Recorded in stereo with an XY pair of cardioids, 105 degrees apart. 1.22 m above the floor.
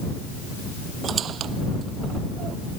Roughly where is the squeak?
Ahead right.